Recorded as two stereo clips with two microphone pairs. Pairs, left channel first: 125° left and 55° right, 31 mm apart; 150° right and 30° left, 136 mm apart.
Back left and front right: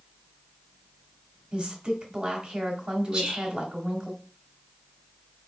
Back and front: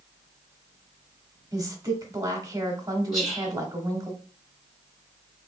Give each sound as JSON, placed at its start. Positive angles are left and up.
{"t": 1.5, "sound": "a woman speaking", "azimuth_deg": -20, "distance_m": 1.0}
{"t": 3.1, "sound": "whispering", "azimuth_deg": -110, "distance_m": 1.3}